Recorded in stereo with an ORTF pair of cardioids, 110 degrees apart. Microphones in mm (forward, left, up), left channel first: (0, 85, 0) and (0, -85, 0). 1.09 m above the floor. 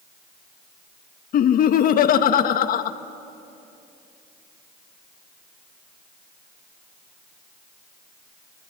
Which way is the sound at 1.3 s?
60° left.